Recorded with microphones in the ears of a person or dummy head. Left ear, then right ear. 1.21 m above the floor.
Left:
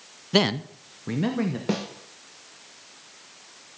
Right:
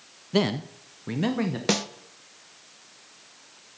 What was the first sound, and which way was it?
A man speaking, 20° left (ahead or behind).